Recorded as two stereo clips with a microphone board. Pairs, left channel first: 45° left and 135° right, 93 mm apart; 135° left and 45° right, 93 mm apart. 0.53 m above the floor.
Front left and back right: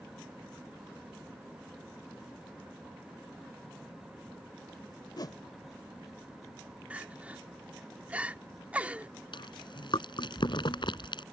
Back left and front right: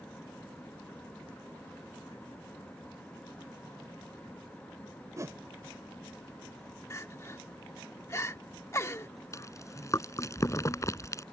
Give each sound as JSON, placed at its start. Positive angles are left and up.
{"t": 5.2, "sound": "a whoosh", "azimuth_deg": 5}
{"t": 6.9, "sound": "crying", "azimuth_deg": 160}
{"t": 9.3, "sound": "chewing", "azimuth_deg": 80}